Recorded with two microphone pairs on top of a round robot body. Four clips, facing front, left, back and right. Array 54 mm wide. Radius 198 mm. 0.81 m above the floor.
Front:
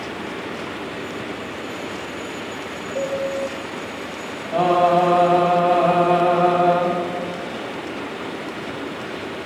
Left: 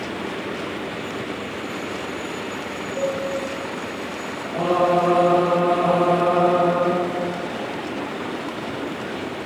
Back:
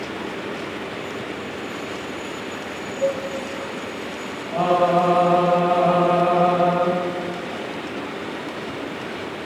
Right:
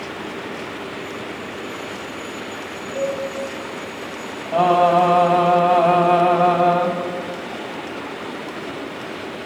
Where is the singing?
80° right, 5 m.